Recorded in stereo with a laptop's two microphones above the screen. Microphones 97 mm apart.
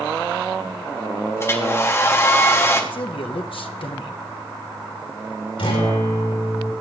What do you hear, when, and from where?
1.4 s a hair dryer: 25° left (ahead or behind), 0.8 m
2.9 s a man speaking: 65° left (ahead or behind), 0.8 m
5.6 s a guitar: 75° left (ahead or behind), 4 m